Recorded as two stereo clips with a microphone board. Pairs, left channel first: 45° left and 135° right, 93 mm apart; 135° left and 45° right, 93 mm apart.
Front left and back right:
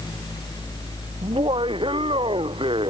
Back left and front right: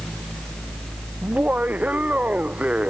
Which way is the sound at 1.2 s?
120° right.